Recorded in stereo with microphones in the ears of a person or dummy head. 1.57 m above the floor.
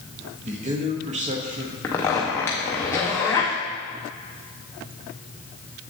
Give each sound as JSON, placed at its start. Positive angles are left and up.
{"t": 0.5, "sound": "a man speaking", "side_deg": -35, "distance_m": 0.9}
{"t": 1.8, "sound": "a zipper", "side_deg": 10, "distance_m": 0.5}